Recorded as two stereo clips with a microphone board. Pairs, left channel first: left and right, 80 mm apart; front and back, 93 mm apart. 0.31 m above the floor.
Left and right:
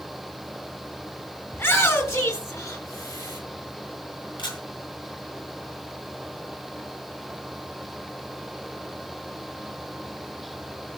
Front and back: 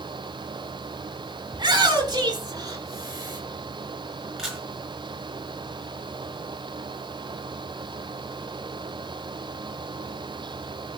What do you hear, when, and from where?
1.5 s a shout: 150° left, 2.5 m; by 3.4 s 130° left, 5.5 m
4.4 s a camera shutter: 95° left, 5.5 m